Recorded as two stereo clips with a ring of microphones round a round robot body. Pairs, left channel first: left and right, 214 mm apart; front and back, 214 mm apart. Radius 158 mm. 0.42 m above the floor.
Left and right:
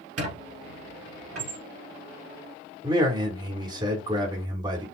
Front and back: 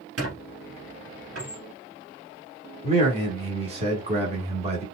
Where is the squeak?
135° right, 1.4 m.